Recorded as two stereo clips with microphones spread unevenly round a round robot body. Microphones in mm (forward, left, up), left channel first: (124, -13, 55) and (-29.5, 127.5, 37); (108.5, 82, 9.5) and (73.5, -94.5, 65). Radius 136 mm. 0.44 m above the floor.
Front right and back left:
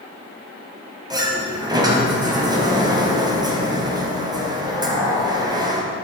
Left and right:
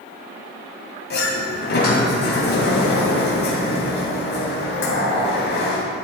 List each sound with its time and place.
1.1 s a sliding door: 65° left, 2.5 m